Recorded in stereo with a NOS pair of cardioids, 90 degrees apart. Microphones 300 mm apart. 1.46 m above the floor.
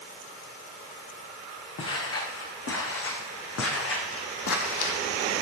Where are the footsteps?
50° left, 5.5 m; by 5.0 s 55° left, 2.5 m.